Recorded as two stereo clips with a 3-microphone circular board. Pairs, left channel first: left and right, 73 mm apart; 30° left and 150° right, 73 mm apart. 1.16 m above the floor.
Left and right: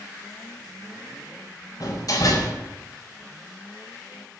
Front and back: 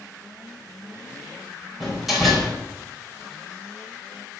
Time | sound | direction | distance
1.8 | a door slam | 120° left | 4 m